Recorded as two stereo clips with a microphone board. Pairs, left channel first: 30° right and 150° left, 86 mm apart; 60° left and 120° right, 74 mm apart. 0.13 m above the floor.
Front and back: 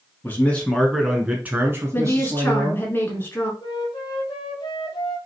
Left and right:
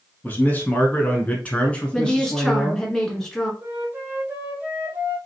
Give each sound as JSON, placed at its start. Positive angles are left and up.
{"t": 0.2, "sound": "a man speaking", "azimuth_deg": 15, "distance_m": 1.4}
{"t": 1.9, "sound": "a woman speaking", "azimuth_deg": -10, "distance_m": 1.5}
{"t": 3.6, "sound": "a flute", "azimuth_deg": -55, "distance_m": 1.3}